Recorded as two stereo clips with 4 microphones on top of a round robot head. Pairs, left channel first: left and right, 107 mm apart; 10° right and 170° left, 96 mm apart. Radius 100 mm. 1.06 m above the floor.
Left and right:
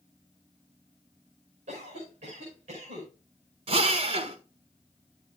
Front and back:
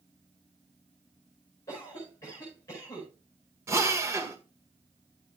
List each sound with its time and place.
1.7 s a cough: 70° right, 5 m
3.7 s a drill: 120° right, 1.4 m